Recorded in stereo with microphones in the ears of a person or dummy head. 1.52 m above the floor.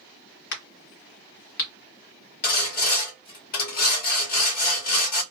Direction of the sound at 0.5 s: 50° left (ahead or behind).